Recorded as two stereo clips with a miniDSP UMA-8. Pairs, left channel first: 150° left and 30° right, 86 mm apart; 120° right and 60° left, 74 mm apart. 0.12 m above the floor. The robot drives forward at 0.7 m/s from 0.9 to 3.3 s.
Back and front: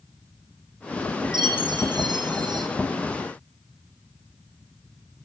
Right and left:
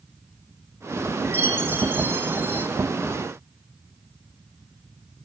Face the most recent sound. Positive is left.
turn(degrees=0)